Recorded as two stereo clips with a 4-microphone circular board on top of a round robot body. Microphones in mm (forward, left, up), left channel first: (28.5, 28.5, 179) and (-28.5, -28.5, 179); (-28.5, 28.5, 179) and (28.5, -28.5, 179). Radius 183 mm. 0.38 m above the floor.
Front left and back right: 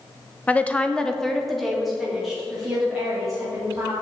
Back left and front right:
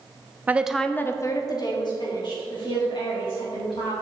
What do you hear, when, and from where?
0.5 s a woman speaking: 5° right, 0.8 m; by 3.9 s 140° left, 3.5 m